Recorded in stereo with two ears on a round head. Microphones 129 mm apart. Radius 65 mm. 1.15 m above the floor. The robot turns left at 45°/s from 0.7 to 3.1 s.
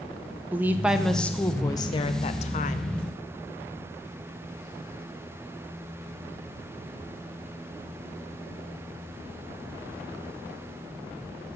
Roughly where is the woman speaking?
Behind.